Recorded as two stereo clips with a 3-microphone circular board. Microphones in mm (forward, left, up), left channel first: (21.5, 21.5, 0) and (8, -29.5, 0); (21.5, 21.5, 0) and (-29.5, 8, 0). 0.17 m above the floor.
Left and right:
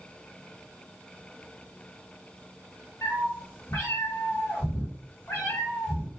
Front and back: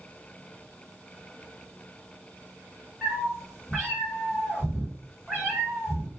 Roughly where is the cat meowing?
Left.